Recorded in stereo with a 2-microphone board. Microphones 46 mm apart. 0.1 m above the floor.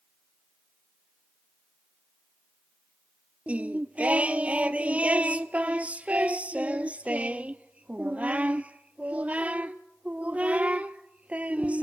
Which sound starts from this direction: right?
Singing, at 3.5 s.